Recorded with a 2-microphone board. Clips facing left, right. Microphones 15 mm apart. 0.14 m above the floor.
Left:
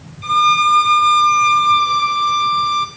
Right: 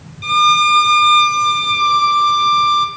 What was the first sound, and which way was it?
A violin, 15° right (ahead or behind).